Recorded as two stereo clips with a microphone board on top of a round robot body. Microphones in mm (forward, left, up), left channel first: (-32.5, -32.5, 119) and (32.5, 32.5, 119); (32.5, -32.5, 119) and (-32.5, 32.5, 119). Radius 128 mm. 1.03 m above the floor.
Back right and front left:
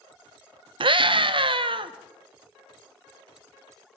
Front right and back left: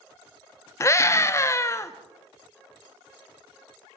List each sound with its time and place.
0.8 s a scream: 15° left, 1.5 m